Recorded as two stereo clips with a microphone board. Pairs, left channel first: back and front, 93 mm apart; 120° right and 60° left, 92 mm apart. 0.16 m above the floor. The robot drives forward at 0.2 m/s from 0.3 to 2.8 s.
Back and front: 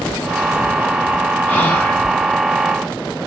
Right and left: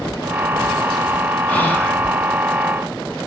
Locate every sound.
1.5 s whispering: 155° right, 1.1 m; by 2.0 s 160° right, 1.1 m